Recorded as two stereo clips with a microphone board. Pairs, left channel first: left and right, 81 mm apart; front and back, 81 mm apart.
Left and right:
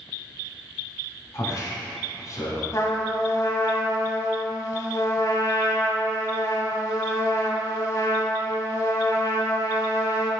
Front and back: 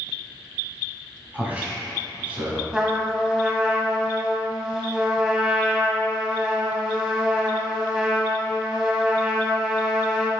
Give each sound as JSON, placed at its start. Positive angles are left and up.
{"t": 1.3, "sound": "a man speaking", "azimuth_deg": 115, "distance_m": 1.8}
{"t": 2.7, "sound": "a trumpet", "azimuth_deg": 100, "distance_m": 1.0}